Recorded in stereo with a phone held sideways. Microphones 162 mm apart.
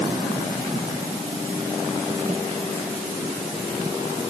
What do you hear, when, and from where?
Only background noise.